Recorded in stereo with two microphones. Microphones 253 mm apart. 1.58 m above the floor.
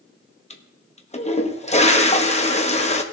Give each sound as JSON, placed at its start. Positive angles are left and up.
{"t": 0.5, "sound": "a toilet flushing", "side_deg": 25, "distance_m": 0.8}